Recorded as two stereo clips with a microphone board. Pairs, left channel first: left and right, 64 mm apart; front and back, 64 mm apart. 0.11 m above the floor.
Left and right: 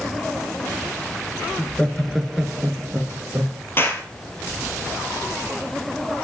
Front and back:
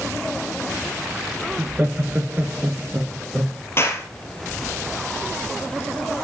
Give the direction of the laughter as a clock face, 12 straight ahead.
7 o'clock.